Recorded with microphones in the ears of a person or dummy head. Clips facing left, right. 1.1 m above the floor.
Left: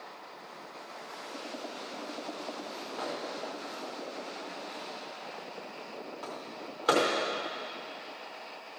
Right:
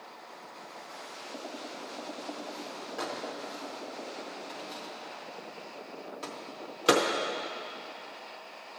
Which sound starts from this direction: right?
A microwave, at 3.0 s.